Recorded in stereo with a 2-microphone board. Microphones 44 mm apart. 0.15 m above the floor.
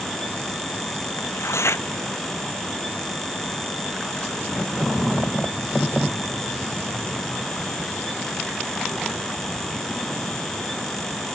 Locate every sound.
1.2 s tearing paper: 80° left